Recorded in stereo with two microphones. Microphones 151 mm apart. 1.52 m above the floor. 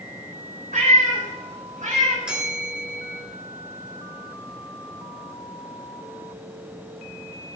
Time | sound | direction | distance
0.7 | a cat meowing | 70° right (ahead or behind) | 3.5 m
2.2 | a bell | 5° right (ahead or behind) | 3.5 m